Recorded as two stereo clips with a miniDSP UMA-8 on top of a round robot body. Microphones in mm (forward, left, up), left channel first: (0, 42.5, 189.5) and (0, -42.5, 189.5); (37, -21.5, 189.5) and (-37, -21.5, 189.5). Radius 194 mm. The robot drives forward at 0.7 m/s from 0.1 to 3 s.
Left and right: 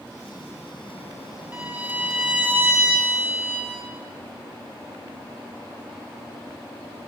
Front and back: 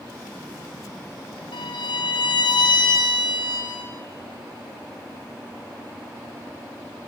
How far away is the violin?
About 3 m.